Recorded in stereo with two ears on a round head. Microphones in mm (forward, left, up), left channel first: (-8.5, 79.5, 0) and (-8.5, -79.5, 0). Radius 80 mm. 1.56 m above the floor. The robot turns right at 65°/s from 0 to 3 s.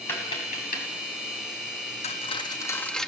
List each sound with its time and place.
0.1 s tapping: 10° left (ahead or behind), 4.5 m; by 0.8 s 60° left (ahead or behind), 4.5 m
2.0 s cutlery clinking: 40° left (ahead or behind), 1.1 m; by 3.1 s 5° left (ahead or behind), 1.1 m